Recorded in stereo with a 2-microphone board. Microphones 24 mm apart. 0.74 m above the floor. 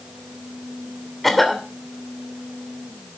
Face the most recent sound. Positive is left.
turn(degrees=5)  # may be behind; listen again after turning